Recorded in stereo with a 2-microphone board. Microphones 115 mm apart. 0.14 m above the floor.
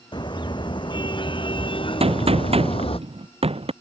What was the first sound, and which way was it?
A car horn, 40° left (ahead or behind).